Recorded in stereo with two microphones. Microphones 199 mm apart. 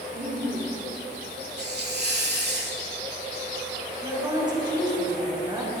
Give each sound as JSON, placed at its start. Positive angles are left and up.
{"t": 0.1, "sound": "laughter", "side_deg": -45, "distance_m": 2.0}
{"t": 1.6, "sound": "a hiss", "side_deg": -55, "distance_m": 1.3}
{"t": 4.0, "sound": "a woman speaking", "side_deg": -20, "distance_m": 5.5}